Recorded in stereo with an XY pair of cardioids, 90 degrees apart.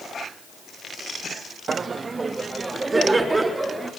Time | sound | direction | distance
1.7 | laughter | 40° right | 1.2 m